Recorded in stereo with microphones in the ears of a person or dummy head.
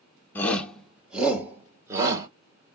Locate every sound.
0.3 s a shout: 15° left (ahead or behind), 0.9 m; by 2.3 s 15° right (ahead or behind), 1.7 m